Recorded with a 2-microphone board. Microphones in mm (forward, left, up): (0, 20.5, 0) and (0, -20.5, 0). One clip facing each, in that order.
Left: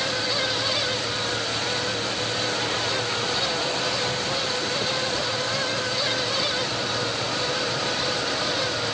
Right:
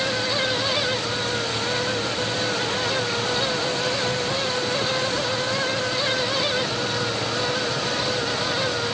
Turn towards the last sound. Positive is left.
No sound to turn to.